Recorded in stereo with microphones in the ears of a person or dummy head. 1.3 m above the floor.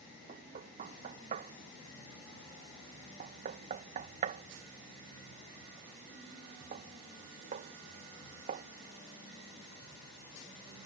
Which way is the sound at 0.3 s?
50° right (ahead or behind).